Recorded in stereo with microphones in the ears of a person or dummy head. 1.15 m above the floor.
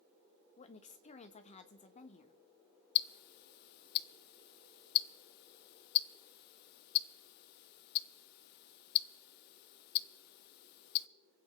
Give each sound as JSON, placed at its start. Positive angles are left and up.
{"t": 0.6, "sound": "a woman speaking", "side_deg": 35, "distance_m": 1.3}
{"t": 3.0, "sound": "ticking", "side_deg": 60, "distance_m": 0.6}